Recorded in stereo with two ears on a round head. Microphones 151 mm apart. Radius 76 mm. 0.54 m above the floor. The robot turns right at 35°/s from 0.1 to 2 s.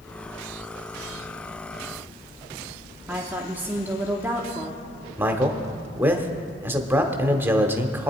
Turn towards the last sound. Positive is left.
turn(degrees=-15)  # may be behind; listen again after turning